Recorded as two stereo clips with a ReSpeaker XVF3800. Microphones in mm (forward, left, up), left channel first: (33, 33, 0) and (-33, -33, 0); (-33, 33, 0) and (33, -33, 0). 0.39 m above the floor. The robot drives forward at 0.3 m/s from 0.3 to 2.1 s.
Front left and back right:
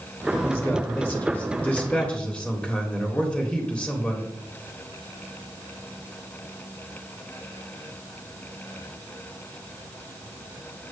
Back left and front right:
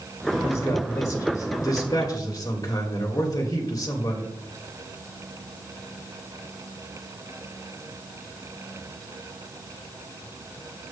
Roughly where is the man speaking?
Left.